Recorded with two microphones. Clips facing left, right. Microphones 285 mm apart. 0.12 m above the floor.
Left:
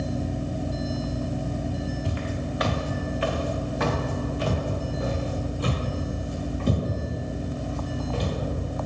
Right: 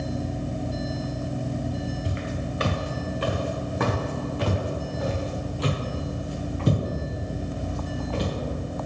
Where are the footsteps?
20° right (ahead or behind), 1.9 m; by 8.3 s 80° right, 4.5 m.